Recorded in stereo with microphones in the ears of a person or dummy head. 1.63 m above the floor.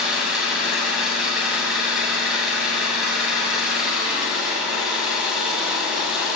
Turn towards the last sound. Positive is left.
turn(degrees=0)  # may be behind; listen again after turning